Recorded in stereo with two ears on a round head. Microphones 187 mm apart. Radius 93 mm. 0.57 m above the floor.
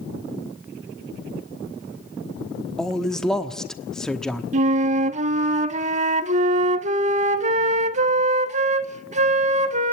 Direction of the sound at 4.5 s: 35° right (ahead or behind).